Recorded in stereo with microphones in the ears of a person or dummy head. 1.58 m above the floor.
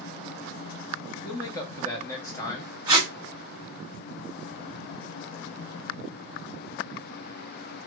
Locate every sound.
1.2 s a man speaking: 25° left (ahead or behind), 1.1 m
2.9 s tape being pulled: 15° right (ahead or behind), 1.3 m